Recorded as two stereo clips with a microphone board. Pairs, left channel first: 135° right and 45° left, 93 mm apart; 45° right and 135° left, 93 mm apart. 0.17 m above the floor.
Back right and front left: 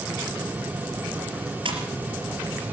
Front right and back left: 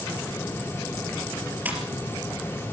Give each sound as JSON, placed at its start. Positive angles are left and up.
{"t": 1.6, "sound": "a splash", "azimuth_deg": 65, "distance_m": 4.5}